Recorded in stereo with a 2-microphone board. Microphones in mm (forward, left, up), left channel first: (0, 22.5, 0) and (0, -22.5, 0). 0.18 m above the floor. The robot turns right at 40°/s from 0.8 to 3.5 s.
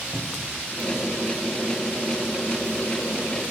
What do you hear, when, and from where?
0.1 s a cupboard door: 20° right (ahead or behind), 3.5 m